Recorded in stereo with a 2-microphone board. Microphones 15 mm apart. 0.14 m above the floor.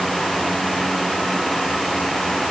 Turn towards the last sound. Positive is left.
No sound to turn to.